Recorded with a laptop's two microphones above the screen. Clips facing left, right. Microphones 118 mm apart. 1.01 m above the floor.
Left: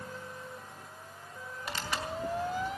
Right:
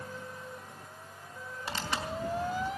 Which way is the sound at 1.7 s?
30° right (ahead or behind).